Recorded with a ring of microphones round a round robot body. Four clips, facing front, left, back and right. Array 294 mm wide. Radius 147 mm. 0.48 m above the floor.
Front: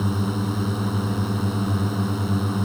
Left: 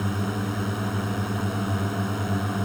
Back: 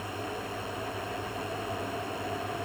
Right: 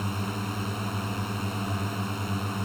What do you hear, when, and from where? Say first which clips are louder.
0.0 s a drone: left 4 dB, front 10 dB; 20° left